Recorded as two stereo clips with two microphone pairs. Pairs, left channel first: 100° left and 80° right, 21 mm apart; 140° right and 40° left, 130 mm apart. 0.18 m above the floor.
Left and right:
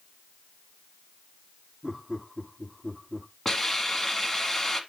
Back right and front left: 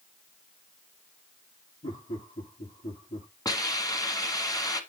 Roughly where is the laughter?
Behind right.